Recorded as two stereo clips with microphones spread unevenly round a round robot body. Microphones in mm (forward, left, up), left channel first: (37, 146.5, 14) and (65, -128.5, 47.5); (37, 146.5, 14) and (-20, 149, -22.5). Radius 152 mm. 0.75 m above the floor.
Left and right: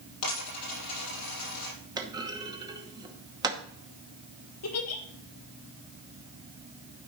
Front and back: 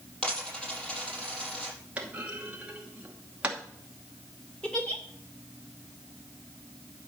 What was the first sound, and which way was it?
A dropped coin, 65° left.